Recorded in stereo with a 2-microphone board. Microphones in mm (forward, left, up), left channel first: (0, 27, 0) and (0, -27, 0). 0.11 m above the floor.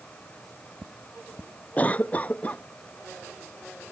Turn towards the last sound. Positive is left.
turn(degrees=25)  # may be behind; listen again after turning